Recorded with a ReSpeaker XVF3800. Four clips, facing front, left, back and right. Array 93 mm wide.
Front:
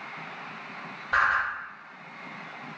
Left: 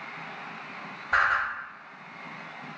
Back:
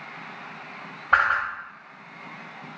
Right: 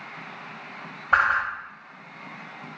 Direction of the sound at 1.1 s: 145° right.